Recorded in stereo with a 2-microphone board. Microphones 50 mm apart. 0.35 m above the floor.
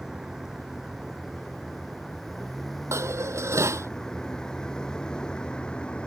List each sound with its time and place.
0.0 s a vehicle: 10° right (ahead or behind); by 6.1 s 20° left (ahead or behind)
2.9 s dishes clattering: 75° right (ahead or behind)